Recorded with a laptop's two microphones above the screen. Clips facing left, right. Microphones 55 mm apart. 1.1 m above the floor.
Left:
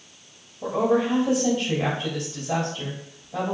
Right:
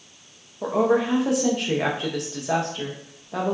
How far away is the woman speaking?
About 0.7 m.